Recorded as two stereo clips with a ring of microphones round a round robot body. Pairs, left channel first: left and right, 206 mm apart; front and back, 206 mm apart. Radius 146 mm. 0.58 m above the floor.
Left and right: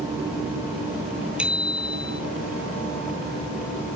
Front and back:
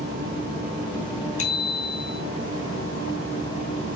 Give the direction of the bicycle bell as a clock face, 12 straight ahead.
12 o'clock.